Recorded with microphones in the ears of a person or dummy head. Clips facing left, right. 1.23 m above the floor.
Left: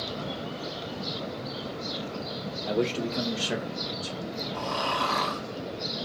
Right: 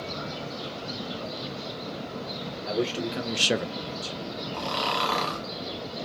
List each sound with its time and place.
2.7 s a man speaking: centre (ahead or behind), 1.2 m; by 4.5 s 30° right (ahead or behind), 1.2 m
4.5 s snoring: 45° right (ahead or behind), 0.7 m